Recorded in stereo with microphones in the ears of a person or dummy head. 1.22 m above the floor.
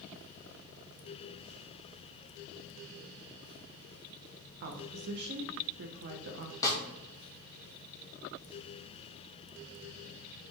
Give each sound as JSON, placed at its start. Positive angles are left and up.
{"t": 4.6, "sound": "a woman speaking", "side_deg": -60, "distance_m": 0.5}
{"t": 6.6, "sound": "a snare drum", "side_deg": 10, "distance_m": 0.7}